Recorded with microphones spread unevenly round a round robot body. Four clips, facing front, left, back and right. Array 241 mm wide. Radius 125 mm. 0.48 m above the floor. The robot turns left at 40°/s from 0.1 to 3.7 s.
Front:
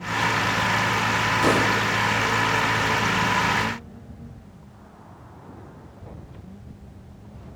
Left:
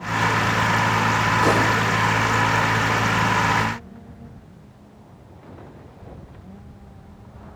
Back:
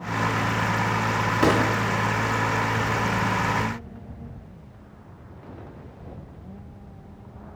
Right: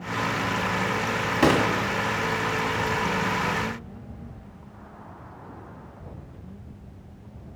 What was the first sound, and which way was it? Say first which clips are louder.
A gunshot: right 1 dB, back 1 dB; 115° right.